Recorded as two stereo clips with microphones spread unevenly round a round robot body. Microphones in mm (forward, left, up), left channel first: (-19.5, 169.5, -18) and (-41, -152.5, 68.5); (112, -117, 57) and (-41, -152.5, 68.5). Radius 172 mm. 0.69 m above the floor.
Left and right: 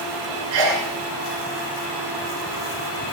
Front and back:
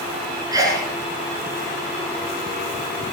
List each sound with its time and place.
0.5 s a sneeze: 100° right, 9 m